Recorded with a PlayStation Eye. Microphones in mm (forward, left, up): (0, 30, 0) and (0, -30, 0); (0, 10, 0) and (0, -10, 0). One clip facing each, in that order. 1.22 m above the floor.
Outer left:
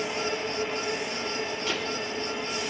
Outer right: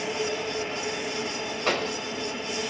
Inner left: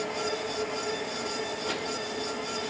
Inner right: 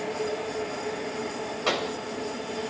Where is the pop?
70° right (ahead or behind), 4.5 m.